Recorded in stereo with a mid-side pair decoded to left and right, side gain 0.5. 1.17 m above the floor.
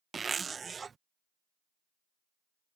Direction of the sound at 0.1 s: 35° right.